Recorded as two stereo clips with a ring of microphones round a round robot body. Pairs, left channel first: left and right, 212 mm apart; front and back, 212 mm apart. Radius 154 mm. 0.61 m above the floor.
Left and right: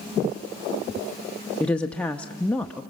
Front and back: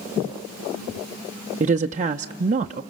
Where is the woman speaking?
170° left, 0.7 m.